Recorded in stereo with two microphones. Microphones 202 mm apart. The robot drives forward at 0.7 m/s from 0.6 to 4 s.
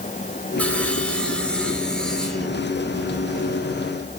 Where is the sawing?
5° left (ahead or behind), 1.3 m.